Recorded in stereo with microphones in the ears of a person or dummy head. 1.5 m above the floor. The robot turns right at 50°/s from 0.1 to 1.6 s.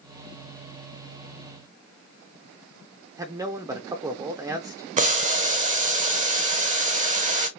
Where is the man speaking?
20° right (ahead or behind), 0.6 m.